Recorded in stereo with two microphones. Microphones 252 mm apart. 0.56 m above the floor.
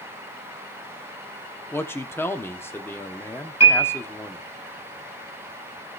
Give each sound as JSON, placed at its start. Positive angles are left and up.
{"t": 1.7, "sound": "a man speaking", "side_deg": 10, "distance_m": 1.1}
{"t": 3.6, "sound": "a piano", "side_deg": 75, "distance_m": 5.5}